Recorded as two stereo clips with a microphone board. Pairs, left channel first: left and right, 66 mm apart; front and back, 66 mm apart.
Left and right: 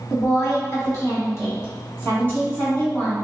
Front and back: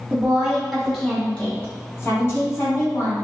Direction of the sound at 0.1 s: 120° left.